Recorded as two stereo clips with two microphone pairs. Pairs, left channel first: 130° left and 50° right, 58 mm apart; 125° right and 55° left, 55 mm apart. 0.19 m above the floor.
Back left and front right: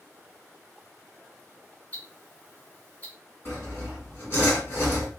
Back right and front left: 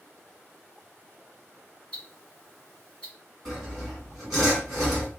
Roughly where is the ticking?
Behind.